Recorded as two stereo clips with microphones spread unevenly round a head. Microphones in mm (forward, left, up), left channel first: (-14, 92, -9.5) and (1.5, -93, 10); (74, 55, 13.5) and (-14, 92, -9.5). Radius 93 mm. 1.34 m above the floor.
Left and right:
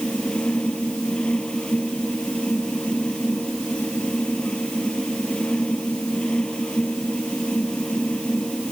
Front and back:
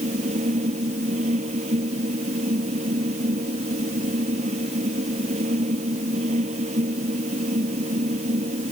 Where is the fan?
Straight behind.